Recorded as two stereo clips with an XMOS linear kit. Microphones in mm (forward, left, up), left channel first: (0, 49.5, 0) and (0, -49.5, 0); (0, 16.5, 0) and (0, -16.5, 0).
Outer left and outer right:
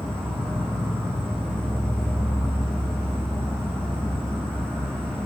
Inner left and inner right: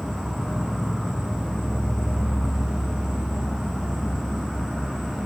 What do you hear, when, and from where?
0.0 s an insect: 10° left (ahead or behind), 1.6 m